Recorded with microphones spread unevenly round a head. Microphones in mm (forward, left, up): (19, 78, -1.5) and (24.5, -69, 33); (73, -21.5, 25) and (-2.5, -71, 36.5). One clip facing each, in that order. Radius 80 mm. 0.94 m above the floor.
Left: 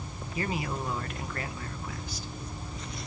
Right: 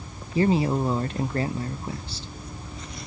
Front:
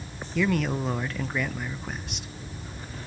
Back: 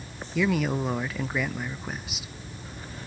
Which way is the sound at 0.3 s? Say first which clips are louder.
Right 11 dB, even; 45° right.